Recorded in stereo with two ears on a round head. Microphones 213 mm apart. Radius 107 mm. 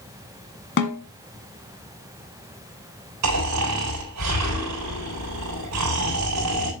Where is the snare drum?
50° left (ahead or behind), 1.4 m.